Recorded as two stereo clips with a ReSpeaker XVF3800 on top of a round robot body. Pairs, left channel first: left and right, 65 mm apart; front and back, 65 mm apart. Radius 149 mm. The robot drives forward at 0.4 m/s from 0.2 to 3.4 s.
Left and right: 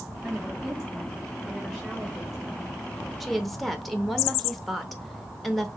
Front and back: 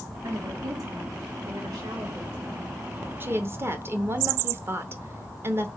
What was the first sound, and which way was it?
A woman speaking, 170° right.